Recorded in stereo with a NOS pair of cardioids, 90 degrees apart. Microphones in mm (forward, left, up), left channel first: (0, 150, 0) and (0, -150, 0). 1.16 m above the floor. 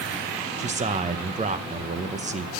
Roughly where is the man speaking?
Ahead right.